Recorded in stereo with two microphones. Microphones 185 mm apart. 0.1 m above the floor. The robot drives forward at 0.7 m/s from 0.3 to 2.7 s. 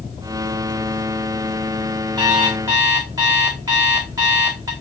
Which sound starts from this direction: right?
An alarm clock, at 2.2 s.